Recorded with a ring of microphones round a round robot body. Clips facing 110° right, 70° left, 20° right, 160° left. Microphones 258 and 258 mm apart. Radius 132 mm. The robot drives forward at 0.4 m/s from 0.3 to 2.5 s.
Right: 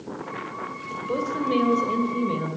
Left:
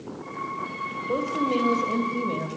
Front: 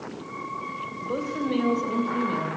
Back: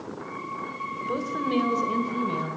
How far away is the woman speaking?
About 2.5 m.